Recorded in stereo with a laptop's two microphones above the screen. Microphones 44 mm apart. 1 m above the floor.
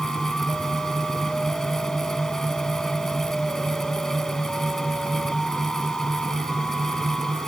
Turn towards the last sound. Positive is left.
turn(degrees=10)  # may be behind; listen again after turning